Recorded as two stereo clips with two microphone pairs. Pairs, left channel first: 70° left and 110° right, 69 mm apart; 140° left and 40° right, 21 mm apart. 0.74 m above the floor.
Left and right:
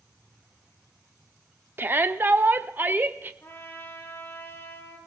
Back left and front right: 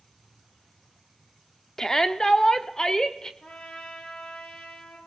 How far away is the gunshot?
No gunshot in this recording.